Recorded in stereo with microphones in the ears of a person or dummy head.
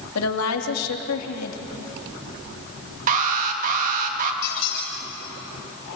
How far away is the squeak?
About 6.5 m.